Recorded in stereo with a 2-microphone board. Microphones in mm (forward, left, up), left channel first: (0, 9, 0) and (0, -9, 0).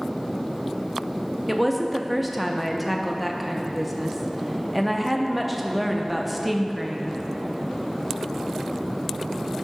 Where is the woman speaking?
5° right (ahead or behind), 0.5 m.